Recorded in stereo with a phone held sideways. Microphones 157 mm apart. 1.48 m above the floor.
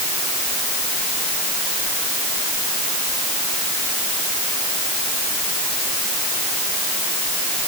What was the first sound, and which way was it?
Only background noise.